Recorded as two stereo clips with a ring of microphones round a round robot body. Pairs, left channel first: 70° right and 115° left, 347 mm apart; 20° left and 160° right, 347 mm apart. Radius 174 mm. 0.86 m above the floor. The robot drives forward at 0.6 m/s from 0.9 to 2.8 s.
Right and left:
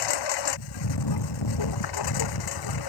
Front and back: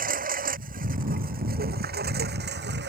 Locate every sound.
0.0 s a lawn mower: 90° right; by 2.9 s 95° right